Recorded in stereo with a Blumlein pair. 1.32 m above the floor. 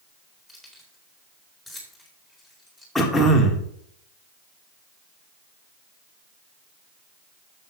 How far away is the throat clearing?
About 1.9 m.